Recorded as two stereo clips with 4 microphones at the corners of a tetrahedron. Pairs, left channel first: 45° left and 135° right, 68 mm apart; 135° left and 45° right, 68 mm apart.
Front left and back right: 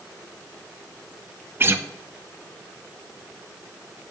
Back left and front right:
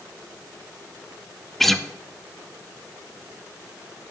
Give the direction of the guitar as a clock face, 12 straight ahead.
5 o'clock.